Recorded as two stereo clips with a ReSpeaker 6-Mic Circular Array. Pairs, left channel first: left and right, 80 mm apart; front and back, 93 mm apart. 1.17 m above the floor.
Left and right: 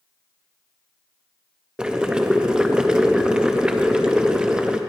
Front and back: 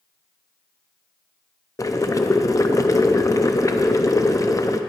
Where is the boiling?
15° right, 0.6 m.